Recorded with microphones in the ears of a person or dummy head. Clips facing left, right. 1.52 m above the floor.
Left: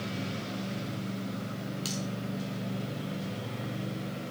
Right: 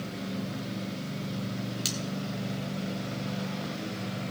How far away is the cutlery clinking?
About 1.3 m.